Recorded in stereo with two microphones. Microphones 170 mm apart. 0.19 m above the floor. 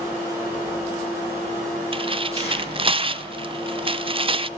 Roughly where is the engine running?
Centre.